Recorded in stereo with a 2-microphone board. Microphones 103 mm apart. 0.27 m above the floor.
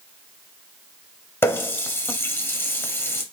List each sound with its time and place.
1.4 s a running tap: 25° left (ahead or behind), 0.7 m